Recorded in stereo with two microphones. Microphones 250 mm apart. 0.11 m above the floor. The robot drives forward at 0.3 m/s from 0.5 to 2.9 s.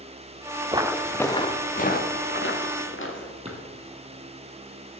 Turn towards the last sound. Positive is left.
turn(degrees=-25)  # may be behind; listen again after turning